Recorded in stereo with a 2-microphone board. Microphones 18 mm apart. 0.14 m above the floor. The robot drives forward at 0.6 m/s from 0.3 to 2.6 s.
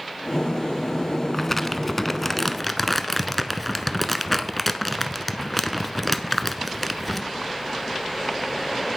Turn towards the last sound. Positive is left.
turn(degrees=10)  # may be behind; listen again after turning